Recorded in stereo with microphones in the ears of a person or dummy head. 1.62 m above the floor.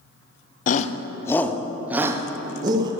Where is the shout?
45° left (ahead or behind), 0.6 m; by 2.9 s 25° right (ahead or behind), 1.4 m.